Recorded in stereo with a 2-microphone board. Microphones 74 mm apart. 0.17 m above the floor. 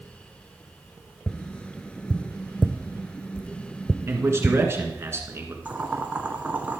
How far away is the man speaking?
About 1.9 m.